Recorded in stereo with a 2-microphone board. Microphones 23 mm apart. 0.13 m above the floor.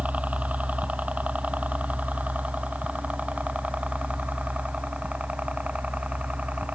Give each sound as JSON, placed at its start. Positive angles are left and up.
{"t": 0.0, "sound": "a helicopter", "side_deg": -70}